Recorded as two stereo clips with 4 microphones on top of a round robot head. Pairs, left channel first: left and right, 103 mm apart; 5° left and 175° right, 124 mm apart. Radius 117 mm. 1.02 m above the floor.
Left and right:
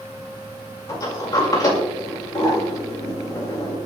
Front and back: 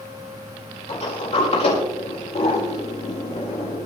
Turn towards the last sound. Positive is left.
turn(degrees=35)